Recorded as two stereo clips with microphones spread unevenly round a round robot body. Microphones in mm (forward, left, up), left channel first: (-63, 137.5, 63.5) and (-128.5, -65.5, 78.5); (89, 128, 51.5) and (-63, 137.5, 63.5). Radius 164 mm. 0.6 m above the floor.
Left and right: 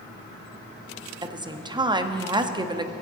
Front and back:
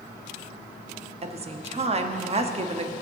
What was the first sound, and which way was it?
A woman speaking, 170° right.